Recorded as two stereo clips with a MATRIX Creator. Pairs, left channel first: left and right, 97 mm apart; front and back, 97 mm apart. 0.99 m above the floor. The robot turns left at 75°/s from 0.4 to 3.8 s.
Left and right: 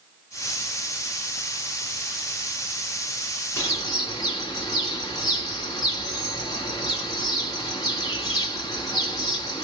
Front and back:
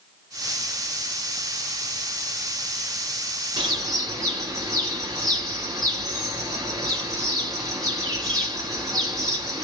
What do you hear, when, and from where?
3.6 s a bird: 150° left, 1.8 m; by 9.7 s 135° left, 1.8 m